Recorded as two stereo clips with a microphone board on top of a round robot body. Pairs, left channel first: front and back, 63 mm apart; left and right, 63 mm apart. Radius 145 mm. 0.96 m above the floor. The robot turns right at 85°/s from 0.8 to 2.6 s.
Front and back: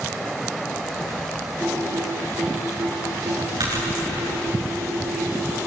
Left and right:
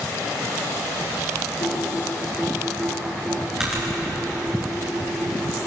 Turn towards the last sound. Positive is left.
turn(degrees=-170)